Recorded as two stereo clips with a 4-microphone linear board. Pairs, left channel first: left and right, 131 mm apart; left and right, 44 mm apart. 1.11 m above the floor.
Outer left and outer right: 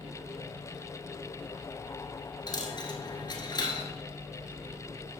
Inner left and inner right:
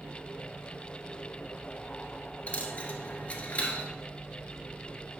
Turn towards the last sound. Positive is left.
turn(degrees=35)  # may be behind; listen again after turning